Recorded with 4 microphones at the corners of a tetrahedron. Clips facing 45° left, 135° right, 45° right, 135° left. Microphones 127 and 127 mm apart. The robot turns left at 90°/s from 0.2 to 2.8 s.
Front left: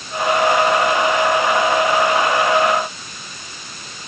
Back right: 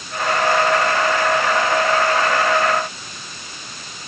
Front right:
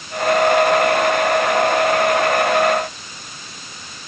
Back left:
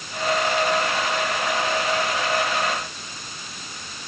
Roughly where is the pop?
I don't hear a pop.